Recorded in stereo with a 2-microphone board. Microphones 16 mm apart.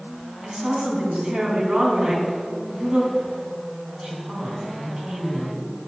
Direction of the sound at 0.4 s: 65° right (ahead or behind).